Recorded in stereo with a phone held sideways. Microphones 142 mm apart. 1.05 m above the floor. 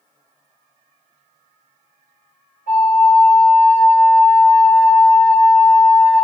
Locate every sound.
2.7 s a flute: 80° left, 2 m